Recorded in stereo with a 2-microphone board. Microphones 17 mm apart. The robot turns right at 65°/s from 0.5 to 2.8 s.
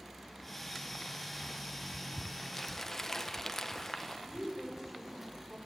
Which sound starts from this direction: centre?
Crumpling, at 2.5 s.